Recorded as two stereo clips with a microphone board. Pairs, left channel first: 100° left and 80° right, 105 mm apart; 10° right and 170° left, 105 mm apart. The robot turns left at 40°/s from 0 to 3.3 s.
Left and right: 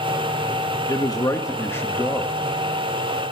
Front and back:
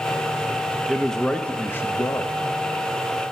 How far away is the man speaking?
About 1.2 m.